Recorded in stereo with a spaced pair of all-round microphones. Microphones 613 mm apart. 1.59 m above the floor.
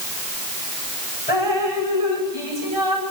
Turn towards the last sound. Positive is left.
turn(degrees=75)  # may be behind; listen again after turning